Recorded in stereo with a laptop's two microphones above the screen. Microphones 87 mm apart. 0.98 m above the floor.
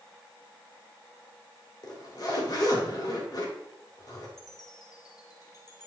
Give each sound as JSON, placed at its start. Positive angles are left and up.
{"t": 1.8, "sound": "a zipper", "side_deg": 45, "distance_m": 2.5}
{"t": 4.4, "sound": "a chime", "side_deg": 45, "distance_m": 1.2}